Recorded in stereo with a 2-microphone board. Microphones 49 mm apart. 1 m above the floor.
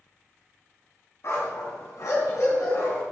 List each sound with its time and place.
1.2 s a dog barking: 60° left (ahead or behind), 3 m; by 3.0 s 85° left, 4.5 m